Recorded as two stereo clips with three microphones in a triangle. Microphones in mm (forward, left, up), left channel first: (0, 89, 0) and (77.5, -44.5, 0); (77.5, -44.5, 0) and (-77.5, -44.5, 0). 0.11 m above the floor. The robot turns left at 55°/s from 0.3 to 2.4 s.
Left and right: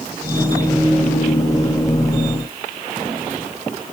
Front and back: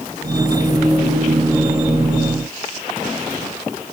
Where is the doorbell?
No doorbell in this recording.